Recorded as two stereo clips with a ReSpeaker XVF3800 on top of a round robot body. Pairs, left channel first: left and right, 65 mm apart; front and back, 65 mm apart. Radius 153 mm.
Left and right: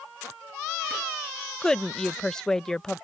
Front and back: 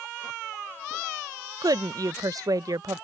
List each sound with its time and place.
1.6 s a woman speaking: 170° left